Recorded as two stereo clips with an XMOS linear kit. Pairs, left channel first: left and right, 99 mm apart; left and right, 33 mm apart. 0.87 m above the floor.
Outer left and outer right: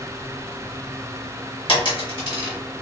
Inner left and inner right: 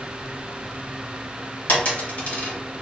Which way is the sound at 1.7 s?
60° left (ahead or behind).